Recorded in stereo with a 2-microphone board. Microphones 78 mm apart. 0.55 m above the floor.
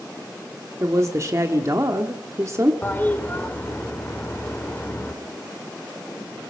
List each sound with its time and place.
0.8 s a woman speaking: 40° right (ahead or behind), 1.5 m
2.8 s a toilet flushing: 25° left (ahead or behind), 2.0 m